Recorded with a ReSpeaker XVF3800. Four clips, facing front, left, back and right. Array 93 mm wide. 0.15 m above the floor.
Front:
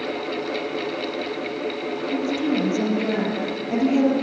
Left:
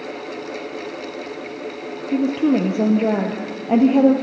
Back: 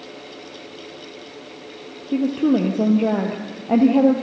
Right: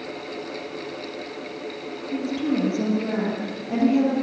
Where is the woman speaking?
130° left, 4 m.